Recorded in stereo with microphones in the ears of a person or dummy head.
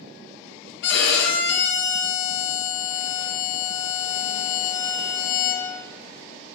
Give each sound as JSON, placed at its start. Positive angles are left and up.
{"t": 0.8, "sound": "a violin", "side_deg": 60, "distance_m": 0.6}